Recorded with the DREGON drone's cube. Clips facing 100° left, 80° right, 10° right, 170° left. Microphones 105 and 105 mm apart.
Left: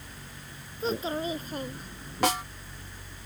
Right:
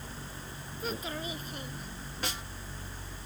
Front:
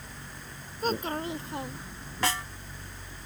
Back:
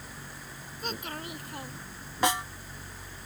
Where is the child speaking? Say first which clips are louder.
Left 7 dB, front 8 dB; 40° left; by 2.3 s 70° left.